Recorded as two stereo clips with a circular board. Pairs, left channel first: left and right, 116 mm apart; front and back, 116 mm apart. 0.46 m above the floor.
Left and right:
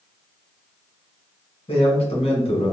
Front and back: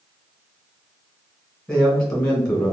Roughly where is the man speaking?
Left.